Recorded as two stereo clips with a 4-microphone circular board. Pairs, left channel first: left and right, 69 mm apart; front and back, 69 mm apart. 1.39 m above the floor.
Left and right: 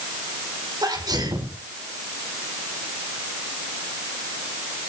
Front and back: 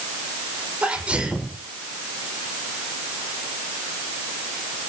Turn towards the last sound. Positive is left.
turn(degrees=-105)